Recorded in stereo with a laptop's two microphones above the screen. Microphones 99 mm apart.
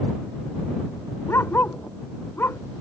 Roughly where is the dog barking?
Left.